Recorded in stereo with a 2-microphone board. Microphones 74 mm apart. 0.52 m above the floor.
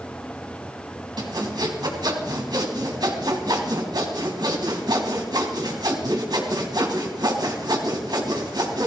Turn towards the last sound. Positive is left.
turn(degrees=-65)  # may be behind; listen again after turning